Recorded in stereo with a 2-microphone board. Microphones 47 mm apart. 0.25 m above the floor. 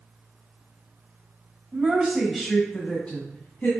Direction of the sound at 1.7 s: 30° right (ahead or behind).